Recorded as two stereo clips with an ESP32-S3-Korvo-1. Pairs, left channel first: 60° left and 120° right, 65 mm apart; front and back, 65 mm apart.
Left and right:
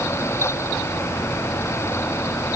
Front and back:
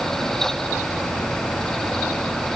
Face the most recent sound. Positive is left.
No sound to turn to.